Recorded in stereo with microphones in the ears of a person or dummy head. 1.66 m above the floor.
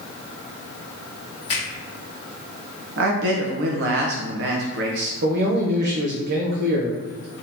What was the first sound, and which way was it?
A finger snap, 30° left (ahead or behind).